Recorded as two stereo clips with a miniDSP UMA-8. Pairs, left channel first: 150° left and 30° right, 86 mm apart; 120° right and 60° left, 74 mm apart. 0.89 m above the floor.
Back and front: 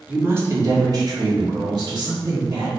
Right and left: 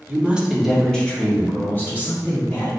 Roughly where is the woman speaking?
Ahead left.